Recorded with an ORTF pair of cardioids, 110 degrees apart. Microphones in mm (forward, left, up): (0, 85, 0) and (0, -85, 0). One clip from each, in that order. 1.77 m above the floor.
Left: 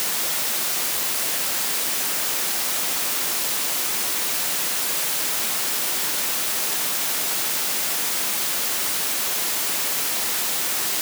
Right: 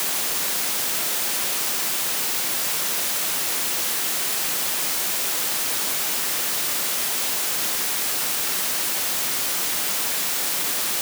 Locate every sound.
Only background noise.